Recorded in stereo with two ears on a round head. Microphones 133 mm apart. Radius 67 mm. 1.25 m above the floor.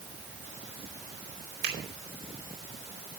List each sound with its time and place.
1.6 s a finger snap: 75° right (ahead or behind), 5 m